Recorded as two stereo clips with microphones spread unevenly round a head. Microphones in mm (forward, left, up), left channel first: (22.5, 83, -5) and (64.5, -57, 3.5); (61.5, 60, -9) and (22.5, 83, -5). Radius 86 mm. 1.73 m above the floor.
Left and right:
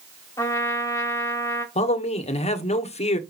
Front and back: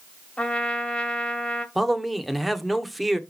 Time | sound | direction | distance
0.4 | a trumpet | 35° left | 2.5 m
1.8 | a man speaking | 60° left | 1.4 m